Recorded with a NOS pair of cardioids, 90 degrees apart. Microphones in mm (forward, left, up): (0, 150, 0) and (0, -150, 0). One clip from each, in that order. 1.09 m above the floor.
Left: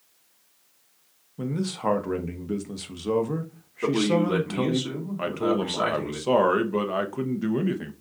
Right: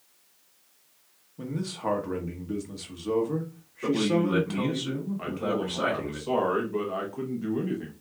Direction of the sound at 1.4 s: 25° left.